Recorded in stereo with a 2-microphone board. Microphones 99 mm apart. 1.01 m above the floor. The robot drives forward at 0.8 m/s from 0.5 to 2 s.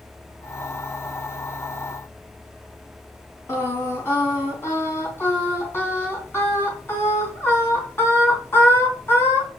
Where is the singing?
25° left (ahead or behind), 3 m.